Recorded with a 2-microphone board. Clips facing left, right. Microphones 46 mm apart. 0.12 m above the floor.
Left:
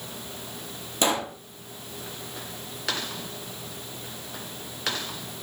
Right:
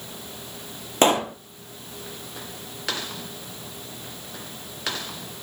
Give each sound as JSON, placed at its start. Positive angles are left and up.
{"t": 1.0, "sound": "a pop", "side_deg": -45, "distance_m": 2.0}